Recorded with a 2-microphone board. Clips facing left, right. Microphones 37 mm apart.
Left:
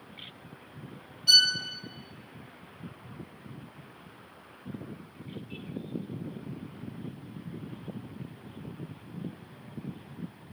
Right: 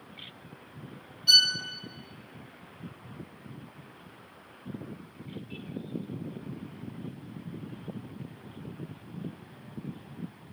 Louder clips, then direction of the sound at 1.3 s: Even; 5° right (ahead or behind).